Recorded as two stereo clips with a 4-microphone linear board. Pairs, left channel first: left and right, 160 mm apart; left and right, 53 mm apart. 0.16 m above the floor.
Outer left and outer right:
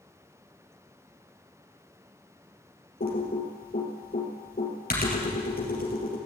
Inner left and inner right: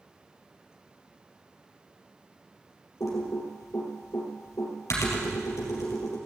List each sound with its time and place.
3.0 s typing on a keyboard: 65° left (ahead or behind), 3.5 m